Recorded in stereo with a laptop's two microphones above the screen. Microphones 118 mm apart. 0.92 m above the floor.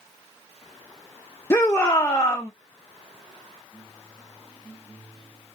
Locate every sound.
1.5 s a shout: 20° left (ahead or behind), 0.6 m